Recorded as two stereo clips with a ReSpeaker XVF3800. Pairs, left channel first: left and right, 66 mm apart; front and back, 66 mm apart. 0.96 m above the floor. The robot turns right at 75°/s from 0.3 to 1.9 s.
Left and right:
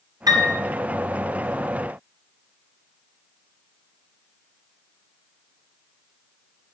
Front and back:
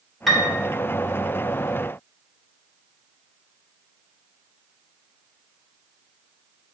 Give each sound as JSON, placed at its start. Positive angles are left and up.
{"t": 0.3, "sound": "a piano", "azimuth_deg": -90, "distance_m": 2.0}